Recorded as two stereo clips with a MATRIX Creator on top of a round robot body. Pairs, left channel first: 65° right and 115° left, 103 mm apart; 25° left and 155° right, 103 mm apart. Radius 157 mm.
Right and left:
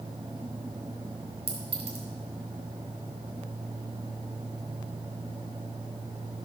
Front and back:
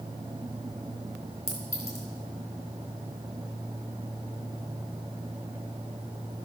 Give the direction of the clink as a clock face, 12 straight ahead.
9 o'clock.